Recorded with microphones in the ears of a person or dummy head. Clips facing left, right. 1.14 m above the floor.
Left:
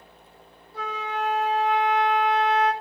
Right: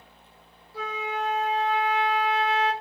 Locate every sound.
0.7 s a flute: 65° left (ahead or behind), 1.5 m